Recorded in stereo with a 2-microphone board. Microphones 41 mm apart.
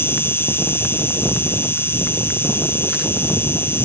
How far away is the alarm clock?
No alarm clock in this recording.